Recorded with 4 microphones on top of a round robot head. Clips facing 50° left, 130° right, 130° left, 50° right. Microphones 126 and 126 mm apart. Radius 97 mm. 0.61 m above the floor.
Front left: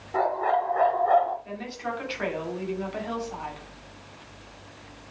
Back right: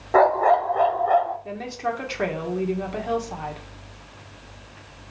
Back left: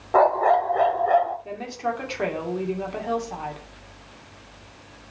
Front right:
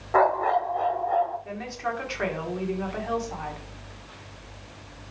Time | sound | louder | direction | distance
0.1 | a dog barking | back right 7 dB, back left 4 dB | 155° right | 0.7 m
1.4 | a woman speaking | back right 5 dB, back left 3 dB | 165° right | 2.5 m